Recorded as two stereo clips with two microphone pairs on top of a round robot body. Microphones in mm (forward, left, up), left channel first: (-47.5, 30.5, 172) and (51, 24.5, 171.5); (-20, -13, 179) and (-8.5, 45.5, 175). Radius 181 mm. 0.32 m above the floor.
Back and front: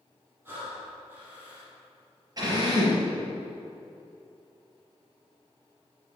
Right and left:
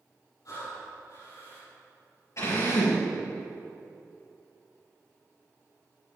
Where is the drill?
60° right, 4.5 m.